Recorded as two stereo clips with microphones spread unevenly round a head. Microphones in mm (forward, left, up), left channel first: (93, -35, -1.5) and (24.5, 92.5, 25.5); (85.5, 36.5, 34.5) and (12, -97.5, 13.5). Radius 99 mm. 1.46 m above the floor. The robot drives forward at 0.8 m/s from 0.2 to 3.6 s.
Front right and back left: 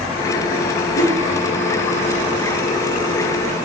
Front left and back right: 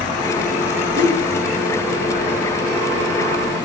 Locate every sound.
0.9 s a whoosh: 75° right, 2.5 m; by 1.2 s 80° right, 2.5 m